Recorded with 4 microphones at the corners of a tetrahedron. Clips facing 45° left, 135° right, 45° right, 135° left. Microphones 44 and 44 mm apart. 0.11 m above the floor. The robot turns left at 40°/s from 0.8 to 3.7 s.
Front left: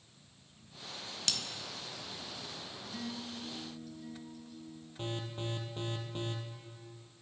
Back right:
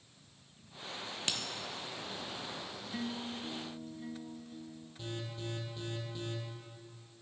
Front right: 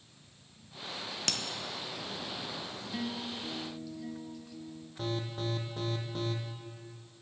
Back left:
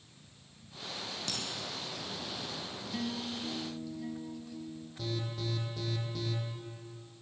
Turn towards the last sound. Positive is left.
turn(degrees=0)